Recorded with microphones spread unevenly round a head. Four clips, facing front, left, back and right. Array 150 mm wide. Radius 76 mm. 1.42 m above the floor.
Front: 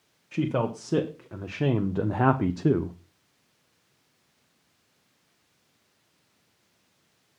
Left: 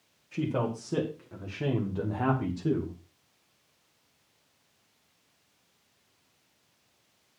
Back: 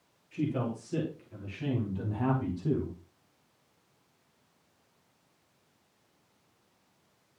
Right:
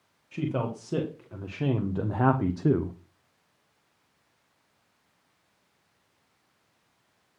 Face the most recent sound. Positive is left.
turn(degrees=-35)